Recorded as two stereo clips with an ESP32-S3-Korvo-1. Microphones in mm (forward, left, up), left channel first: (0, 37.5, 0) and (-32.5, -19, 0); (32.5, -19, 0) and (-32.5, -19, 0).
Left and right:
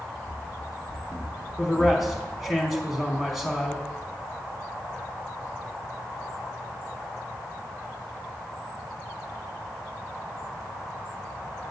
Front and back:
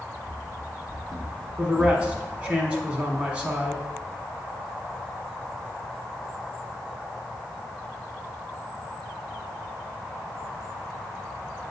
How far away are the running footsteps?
About 1.1 m.